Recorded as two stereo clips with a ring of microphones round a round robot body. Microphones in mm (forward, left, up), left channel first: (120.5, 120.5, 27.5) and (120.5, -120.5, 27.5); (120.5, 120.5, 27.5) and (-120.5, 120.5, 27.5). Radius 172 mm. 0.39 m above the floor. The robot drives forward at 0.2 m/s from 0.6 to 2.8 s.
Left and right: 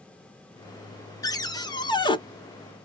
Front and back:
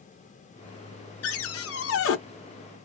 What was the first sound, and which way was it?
A cupboard door, 15° left.